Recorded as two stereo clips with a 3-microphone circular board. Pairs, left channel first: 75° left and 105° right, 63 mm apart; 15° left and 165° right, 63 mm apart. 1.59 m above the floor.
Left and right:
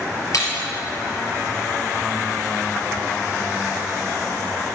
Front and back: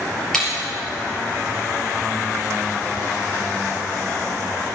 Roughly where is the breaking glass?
Left.